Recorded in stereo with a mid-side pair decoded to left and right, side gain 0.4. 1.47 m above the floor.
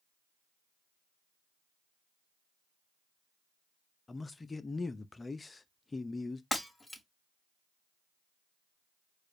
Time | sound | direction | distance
4.1 | a man speaking | 30° left | 0.6 m
6.5 | breaking glass | 15° left | 2 m